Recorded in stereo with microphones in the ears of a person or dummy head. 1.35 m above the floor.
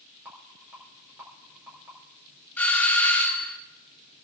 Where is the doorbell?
10° left (ahead or behind), 1.4 m.